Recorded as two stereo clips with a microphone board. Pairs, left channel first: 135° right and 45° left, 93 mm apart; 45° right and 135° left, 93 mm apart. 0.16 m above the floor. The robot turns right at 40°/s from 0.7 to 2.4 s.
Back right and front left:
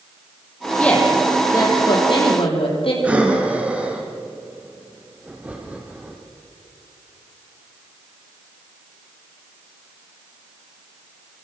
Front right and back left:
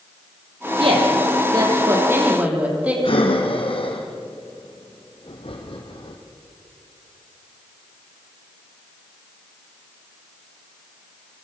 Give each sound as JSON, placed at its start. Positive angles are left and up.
{"t": 0.8, "sound": "a woman speaking", "azimuth_deg": 145, "distance_m": 7.0}
{"t": 3.0, "sound": "breathing", "azimuth_deg": -30, "distance_m": 3.5}